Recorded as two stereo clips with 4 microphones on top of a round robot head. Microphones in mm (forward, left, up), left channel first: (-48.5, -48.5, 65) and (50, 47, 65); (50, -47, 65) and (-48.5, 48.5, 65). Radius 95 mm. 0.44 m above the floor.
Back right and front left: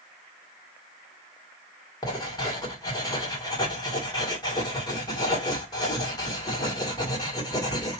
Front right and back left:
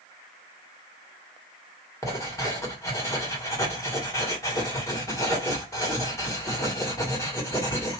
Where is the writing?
95° right, 1.7 m.